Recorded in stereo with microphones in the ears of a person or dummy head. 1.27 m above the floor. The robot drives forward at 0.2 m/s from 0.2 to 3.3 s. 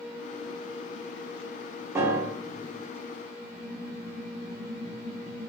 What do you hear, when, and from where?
1.9 s a piano: 15° right (ahead or behind), 0.5 m; by 2.8 s 10° right (ahead or behind), 0.7 m